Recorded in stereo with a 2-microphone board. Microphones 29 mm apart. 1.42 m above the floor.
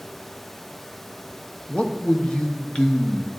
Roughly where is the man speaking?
Left.